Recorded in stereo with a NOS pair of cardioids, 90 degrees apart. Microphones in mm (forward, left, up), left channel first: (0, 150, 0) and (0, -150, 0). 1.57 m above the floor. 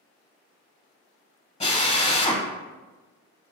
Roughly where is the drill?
Ahead.